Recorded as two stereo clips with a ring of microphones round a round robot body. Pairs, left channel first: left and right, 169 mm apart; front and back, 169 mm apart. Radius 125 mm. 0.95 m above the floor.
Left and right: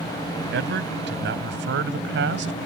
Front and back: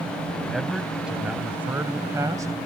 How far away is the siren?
I don't hear a siren.